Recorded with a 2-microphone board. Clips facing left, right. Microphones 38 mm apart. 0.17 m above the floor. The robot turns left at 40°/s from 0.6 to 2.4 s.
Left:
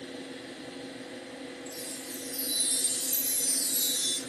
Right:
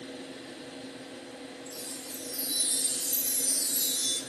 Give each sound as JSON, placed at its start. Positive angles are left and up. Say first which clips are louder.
{"t": 0.0, "sound": "an engine running", "louder": "left 1 dB", "azimuth_deg": 145, "distance_m": 1.9}
{"t": 1.7, "sound": "a chime", "louder": "left 1 dB", "side_deg": 20, "distance_m": 0.7}